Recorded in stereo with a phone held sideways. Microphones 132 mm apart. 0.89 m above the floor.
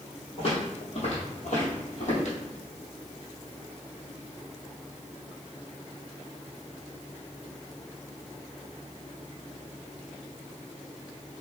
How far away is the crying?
No crying in this recording.